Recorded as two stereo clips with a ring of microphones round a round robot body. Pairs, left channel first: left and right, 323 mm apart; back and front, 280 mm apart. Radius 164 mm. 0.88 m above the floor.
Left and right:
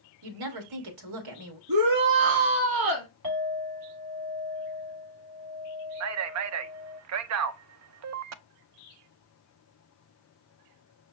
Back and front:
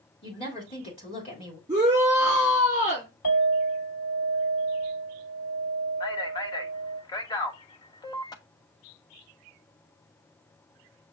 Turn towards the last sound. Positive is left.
turn(degrees=-110)